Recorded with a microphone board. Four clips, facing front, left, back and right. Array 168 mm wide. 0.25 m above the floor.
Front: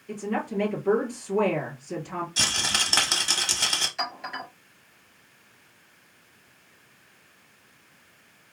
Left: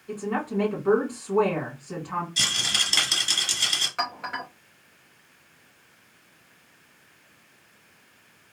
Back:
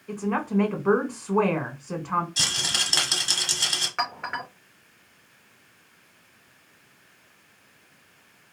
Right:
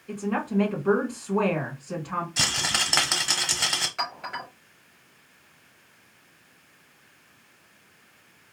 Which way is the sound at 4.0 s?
160° left.